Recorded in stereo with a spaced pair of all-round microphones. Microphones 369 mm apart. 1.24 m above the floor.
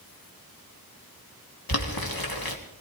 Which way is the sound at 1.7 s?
70° left (ahead or behind).